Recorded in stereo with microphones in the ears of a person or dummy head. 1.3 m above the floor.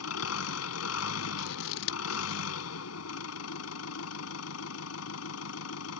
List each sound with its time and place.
0.0 s an engine running: 90° left
1.4 s scissors: 50° left (ahead or behind)